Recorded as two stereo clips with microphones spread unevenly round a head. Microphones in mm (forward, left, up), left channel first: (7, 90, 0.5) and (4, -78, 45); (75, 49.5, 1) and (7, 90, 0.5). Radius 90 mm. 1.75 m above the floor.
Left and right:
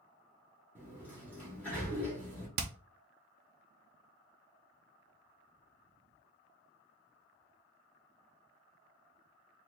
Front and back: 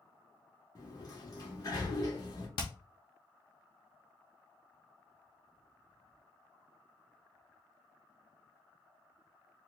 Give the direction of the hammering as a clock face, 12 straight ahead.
2 o'clock.